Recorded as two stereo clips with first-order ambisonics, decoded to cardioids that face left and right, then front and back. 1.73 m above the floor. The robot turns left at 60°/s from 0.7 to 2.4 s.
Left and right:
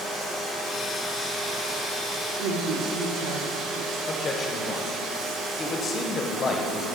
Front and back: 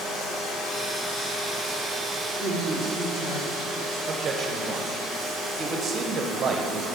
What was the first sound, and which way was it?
Running water, 20° left.